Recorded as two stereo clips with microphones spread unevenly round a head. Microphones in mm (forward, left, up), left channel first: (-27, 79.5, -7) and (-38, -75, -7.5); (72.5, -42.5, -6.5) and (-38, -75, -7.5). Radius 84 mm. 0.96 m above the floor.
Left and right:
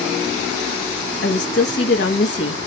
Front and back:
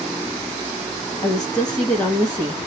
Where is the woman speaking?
90° left, 1.2 m.